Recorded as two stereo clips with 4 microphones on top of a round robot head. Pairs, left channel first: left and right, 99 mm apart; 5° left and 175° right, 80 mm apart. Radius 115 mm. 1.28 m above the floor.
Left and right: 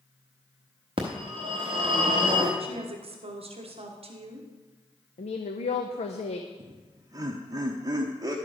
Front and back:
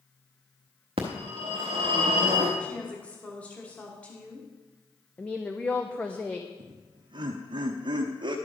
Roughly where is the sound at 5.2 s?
Left.